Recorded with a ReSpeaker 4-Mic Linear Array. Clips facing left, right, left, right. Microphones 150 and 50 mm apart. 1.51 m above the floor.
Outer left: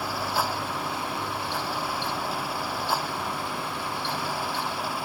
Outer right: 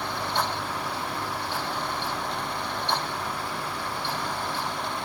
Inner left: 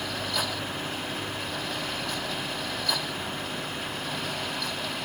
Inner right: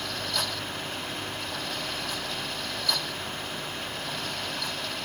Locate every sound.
Only background noise.